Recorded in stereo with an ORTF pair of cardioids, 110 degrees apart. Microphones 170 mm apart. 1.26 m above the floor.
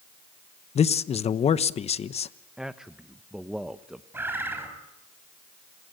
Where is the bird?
10° right, 5.5 m.